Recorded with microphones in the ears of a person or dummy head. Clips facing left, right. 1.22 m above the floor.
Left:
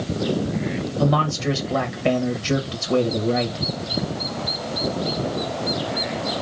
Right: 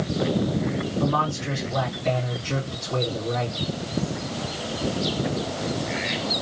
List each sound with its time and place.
1.0 s a man speaking: 85° left, 1.2 m